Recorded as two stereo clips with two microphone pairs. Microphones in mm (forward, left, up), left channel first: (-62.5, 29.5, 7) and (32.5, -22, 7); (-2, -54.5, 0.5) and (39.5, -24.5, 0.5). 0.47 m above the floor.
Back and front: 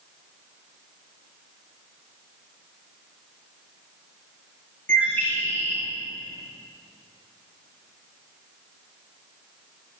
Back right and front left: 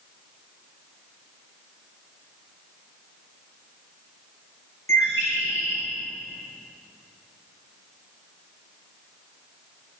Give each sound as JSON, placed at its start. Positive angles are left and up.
{"t": 4.9, "sound": "a bird", "azimuth_deg": -135, "distance_m": 3.0}